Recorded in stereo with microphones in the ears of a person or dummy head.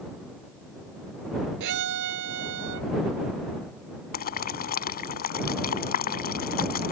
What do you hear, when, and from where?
1.6 s a violin: 65° right (ahead or behind)
4.1 s boiling: 45° left (ahead or behind)